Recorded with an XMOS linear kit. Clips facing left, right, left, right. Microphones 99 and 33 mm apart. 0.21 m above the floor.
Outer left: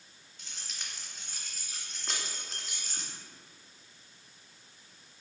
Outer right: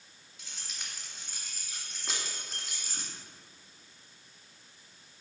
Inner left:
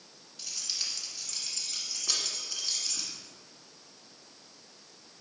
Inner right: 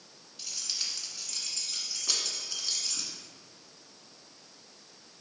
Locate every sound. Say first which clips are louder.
0.4 s keys jangling: even, even; 5° right (ahead or behind), 1.7 m